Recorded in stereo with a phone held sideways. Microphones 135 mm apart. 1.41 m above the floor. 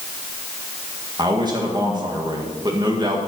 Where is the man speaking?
30° right (ahead or behind), 1.8 m.